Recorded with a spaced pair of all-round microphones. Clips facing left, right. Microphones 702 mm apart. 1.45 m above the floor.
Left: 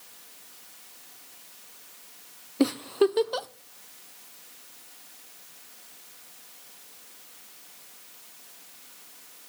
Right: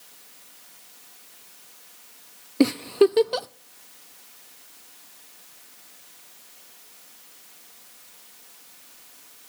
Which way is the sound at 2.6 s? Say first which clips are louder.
Right 5 dB; 60° right (ahead or behind).